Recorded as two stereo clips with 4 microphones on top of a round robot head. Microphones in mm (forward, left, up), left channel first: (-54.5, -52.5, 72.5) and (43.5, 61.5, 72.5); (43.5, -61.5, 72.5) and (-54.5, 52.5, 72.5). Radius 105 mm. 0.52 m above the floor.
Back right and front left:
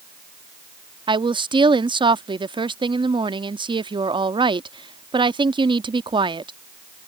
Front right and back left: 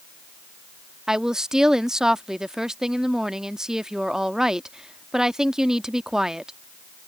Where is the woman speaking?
50° left.